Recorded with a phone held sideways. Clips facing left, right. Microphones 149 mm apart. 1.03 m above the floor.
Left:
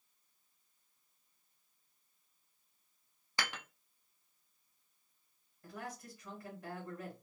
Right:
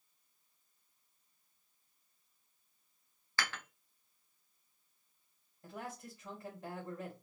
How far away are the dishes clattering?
About 0.7 m.